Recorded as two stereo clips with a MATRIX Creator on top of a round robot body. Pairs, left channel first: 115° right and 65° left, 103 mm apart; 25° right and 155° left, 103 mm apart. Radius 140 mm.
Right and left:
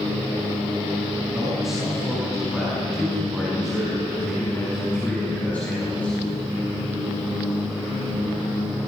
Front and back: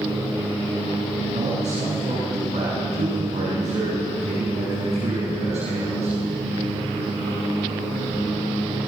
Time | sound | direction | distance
1.3 | a man speaking | 155° left | 7 m